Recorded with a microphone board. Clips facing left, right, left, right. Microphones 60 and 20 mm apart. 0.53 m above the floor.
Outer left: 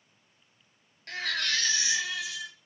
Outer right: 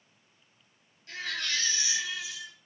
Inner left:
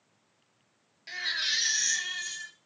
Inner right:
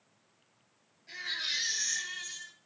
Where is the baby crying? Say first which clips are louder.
Outer left 3 dB, inner left 5 dB; 65° left (ahead or behind), 1.8 m.